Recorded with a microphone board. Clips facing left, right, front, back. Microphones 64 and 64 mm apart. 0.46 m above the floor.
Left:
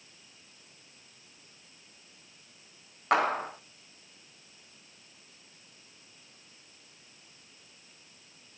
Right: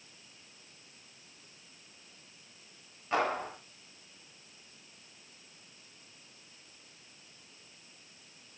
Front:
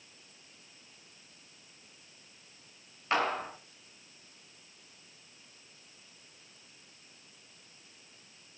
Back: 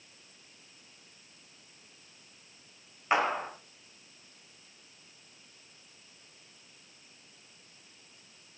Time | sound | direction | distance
3.1 | a clap | 105° left | 5 m